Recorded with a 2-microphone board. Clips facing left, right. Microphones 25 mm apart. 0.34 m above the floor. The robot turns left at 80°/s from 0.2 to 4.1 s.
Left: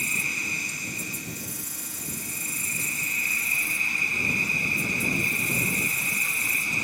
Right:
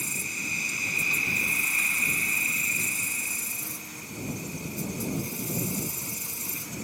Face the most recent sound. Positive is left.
turn(degrees=80)